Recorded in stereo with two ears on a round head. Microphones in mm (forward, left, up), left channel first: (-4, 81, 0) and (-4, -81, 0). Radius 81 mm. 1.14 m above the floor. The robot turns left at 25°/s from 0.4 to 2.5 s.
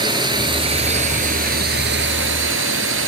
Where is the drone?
25° right; by 3.1 s 75° right.